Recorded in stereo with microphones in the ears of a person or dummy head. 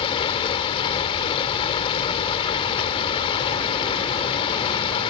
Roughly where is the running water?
Left.